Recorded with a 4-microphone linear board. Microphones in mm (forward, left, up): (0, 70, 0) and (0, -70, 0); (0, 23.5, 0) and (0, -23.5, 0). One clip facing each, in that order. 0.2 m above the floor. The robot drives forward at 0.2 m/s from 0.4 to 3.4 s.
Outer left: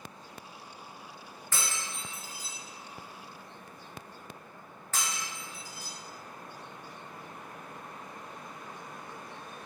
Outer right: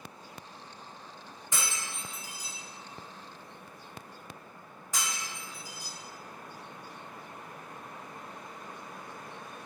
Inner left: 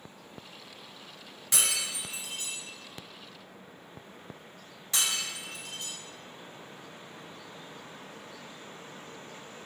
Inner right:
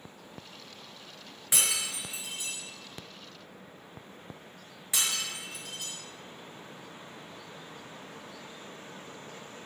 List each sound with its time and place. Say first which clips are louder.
1.5 s breaking glass: even, even; 20° right (ahead or behind), 1.0 m; by 5.9 s 15° right (ahead or behind), 1.3 m